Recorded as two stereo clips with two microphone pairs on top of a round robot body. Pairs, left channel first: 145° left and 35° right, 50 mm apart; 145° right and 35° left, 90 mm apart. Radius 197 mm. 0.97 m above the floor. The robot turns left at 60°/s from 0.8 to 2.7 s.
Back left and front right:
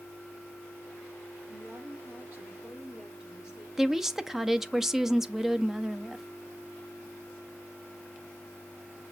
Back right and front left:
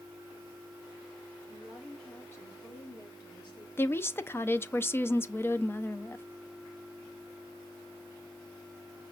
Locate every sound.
1.5 s a woman speaking: 35° right, 1.6 m; by 3.7 s 105° right, 1.6 m
3.8 s a woman speaking: 105° right, 0.6 m